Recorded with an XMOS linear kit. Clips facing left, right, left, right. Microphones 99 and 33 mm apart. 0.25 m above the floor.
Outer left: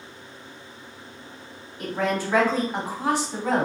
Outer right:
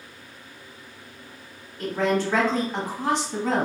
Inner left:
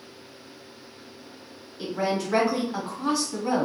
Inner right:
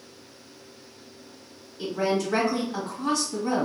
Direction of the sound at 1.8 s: 10° left (ahead or behind).